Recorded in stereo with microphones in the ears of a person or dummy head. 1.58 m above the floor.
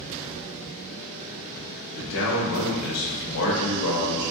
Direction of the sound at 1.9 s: 75° left (ahead or behind).